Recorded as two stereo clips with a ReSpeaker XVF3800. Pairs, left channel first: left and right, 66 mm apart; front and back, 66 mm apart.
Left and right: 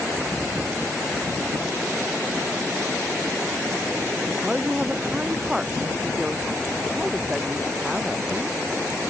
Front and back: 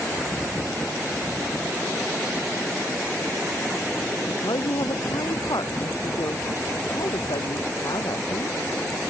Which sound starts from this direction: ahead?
A woman speaking, at 4.3 s.